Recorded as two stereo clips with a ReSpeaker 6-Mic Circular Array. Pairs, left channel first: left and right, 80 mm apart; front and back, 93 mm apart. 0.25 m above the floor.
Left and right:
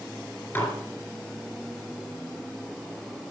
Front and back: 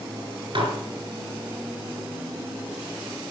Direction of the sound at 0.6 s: 155° left.